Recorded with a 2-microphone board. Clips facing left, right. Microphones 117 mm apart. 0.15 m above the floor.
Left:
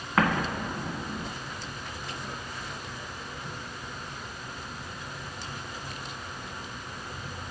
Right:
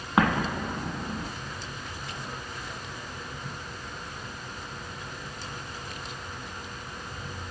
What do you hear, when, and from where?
0.2 s an explosion: 20° right (ahead or behind), 0.7 m